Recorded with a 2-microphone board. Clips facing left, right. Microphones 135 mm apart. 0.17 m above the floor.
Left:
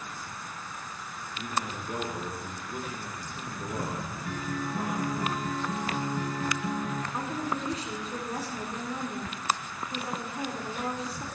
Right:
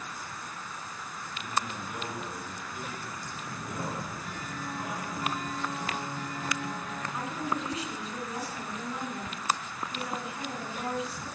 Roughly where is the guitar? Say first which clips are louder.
Left 5 dB; left.